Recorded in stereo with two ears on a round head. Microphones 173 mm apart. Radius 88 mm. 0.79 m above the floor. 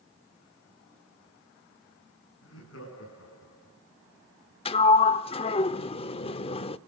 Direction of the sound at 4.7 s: 30° left (ahead or behind).